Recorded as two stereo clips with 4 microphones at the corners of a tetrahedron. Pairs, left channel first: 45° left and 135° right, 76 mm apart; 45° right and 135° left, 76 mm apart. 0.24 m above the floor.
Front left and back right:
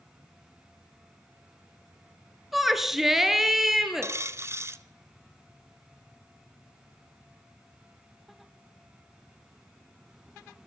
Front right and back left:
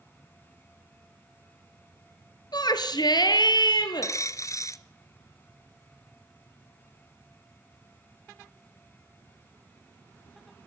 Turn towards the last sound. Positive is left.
turn(degrees=-85)